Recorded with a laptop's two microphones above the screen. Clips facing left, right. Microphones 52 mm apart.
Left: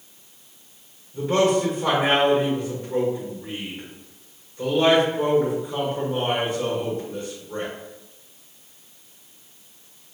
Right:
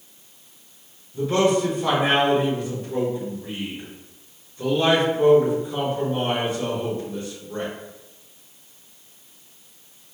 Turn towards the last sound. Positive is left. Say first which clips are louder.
# even
turn(degrees=35)  # may be behind; listen again after turning